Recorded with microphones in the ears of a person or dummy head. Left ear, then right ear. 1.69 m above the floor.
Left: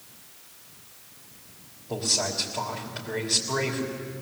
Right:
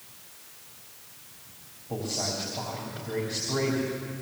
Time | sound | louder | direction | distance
1.9 | a man speaking | left 5 dB | 50° left (ahead or behind) | 3.5 m